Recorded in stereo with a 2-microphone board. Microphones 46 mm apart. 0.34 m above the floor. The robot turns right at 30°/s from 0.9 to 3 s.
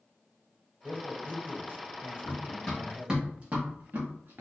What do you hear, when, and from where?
0.8 s a man speaking: 115° right, 1.1 m; by 3.2 s 50° right, 1.1 m
2.2 s running footsteps: 45° left (ahead or behind), 1.5 m; by 4.4 s 70° right (ahead or behind), 2.0 m